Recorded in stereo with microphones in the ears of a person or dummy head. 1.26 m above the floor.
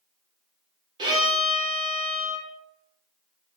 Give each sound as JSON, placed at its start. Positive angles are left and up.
{"t": 1.0, "sound": "a violin", "side_deg": -30, "distance_m": 0.9}